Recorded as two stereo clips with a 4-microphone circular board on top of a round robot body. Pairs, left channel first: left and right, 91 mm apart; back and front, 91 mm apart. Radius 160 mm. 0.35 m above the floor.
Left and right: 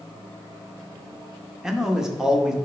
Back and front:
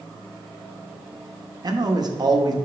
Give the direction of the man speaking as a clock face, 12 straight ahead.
12 o'clock.